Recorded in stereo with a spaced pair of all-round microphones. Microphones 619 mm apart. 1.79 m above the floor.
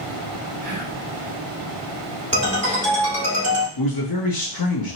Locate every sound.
0.6 s whispering: 40° right (ahead or behind), 2 m
2.3 s a ringtone: 25° right (ahead or behind), 2.5 m
3.8 s a man speaking: 35° left (ahead or behind), 0.7 m